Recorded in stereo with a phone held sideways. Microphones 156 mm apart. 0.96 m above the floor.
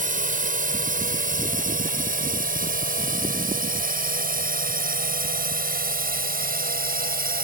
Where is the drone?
60° right (ahead or behind); by 7.4 s 70° right (ahead or behind).